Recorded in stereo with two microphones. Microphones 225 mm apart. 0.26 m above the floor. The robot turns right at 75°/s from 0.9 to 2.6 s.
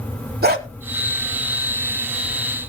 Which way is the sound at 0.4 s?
50° right (ahead or behind).